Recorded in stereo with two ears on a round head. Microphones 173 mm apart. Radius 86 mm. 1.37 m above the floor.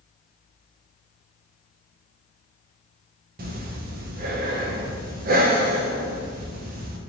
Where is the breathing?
50° right (ahead or behind), 0.5 m.